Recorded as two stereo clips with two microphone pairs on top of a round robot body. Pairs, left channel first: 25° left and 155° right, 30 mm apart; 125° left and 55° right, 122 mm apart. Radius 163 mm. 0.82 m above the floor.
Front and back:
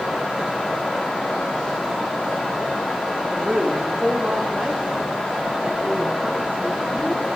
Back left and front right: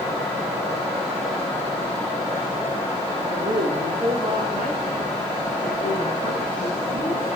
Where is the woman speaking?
100° right, 2 m; by 7.4 s 95° right, 8 m.